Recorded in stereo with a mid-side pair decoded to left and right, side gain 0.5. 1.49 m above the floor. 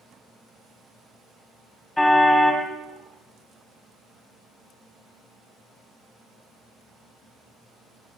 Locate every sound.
2.0 s a car horn: 15° left, 6 m